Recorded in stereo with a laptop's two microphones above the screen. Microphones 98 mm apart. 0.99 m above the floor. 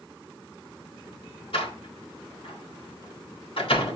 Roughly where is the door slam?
Left.